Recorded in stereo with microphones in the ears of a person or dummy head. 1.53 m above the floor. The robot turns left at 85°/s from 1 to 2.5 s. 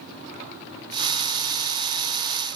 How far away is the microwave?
No microwave in this recording.